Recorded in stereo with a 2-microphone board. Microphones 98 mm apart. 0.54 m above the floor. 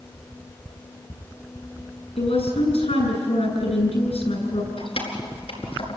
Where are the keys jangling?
75° left (ahead or behind), 4.5 m.